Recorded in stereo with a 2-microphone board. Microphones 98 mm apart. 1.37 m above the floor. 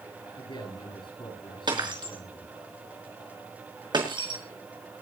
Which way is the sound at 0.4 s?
55° left (ahead or behind).